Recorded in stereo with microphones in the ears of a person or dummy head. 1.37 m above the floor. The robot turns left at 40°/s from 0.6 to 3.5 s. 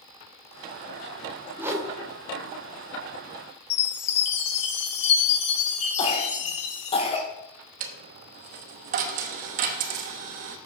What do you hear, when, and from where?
1.6 s a whoosh: 10° right (ahead or behind), 0.8 m; by 1.9 s 20° right (ahead or behind), 0.8 m
3.7 s a chime: 35° left (ahead or behind), 1.3 m
6.0 s a cough: 35° left (ahead or behind), 1.9 m
7.8 s a dropped coin: 45° right (ahead or behind), 0.9 m